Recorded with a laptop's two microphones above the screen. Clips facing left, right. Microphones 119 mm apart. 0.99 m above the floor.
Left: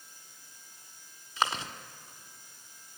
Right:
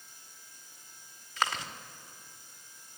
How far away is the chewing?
About 1.6 m.